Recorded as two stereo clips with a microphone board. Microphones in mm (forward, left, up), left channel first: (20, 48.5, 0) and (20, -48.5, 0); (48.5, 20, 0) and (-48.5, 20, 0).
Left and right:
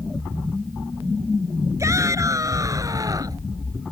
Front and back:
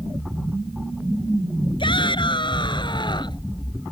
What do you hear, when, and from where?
1.8 s a shout: 35° right; by 3.5 s 40° right